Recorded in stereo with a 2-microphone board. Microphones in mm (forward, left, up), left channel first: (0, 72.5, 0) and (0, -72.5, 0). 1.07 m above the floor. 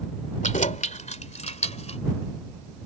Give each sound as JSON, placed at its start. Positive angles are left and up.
{"t": 0.4, "sound": "keys jangling", "side_deg": 60}